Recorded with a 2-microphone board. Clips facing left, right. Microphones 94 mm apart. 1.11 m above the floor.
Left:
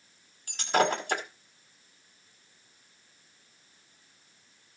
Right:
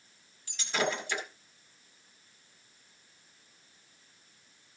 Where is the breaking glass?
50° left (ahead or behind), 1.8 m.